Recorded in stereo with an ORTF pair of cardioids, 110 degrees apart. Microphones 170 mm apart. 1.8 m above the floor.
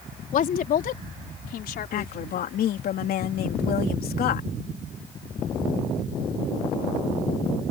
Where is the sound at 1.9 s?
60° left.